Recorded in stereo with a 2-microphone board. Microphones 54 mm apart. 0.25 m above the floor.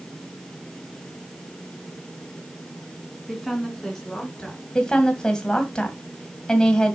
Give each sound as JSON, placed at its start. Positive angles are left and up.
{"t": 3.3, "sound": "a woman speaking", "side_deg": 0, "distance_m": 2.5}
{"t": 4.8, "sound": "a woman speaking", "side_deg": 15, "distance_m": 1.8}